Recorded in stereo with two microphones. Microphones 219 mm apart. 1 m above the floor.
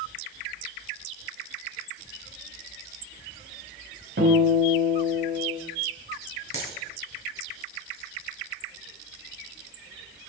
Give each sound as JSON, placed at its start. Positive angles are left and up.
{"t": 4.2, "sound": "a guitar", "side_deg": -60, "distance_m": 3.5}
{"t": 6.5, "sound": "a dropped coin", "side_deg": -85, "distance_m": 4.0}